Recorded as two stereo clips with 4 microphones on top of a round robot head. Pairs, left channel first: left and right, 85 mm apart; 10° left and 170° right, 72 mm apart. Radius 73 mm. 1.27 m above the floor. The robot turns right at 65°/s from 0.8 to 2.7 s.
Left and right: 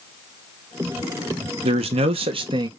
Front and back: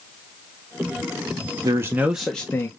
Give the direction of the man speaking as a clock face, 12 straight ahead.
4 o'clock.